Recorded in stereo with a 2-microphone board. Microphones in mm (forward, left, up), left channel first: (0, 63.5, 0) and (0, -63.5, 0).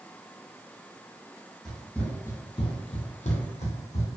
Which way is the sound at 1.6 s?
Centre (ahead or behind).